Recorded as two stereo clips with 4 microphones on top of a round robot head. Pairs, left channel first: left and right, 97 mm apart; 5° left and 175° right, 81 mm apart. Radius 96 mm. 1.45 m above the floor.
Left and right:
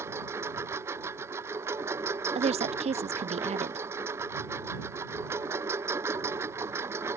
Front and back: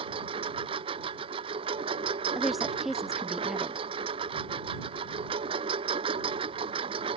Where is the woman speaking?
85° right.